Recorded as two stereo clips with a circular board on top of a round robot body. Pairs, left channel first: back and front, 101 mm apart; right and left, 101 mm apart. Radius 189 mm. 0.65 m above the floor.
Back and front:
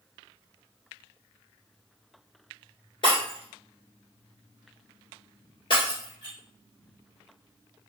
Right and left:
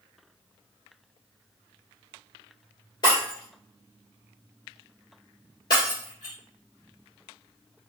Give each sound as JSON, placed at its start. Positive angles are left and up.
{"t": 3.0, "sound": "breaking glass", "azimuth_deg": -140, "distance_m": 1.6}